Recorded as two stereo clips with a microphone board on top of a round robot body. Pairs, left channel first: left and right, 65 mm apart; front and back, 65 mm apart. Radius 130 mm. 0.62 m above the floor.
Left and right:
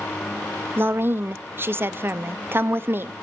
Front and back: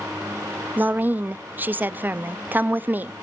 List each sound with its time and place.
0.8 s a woman speaking: 130° right, 0.8 m